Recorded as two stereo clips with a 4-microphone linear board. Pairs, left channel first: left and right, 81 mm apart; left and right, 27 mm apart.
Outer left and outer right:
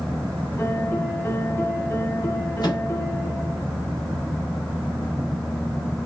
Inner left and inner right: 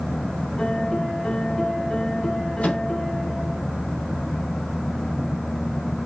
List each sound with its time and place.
0.6 s a piano: 30° left (ahead or behind), 1.1 m
2.6 s a microwave: 60° left (ahead or behind), 2 m